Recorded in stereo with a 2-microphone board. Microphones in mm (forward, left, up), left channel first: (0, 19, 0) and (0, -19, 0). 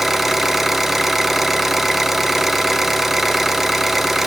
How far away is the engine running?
About 1.0 m.